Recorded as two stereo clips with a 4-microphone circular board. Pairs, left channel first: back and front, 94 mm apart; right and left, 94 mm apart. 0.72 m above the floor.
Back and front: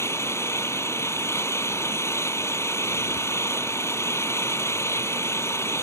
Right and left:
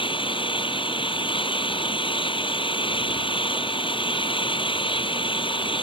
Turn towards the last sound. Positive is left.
turn(degrees=-115)